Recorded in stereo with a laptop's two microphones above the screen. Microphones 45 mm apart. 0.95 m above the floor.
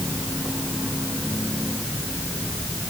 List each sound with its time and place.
Only background noise.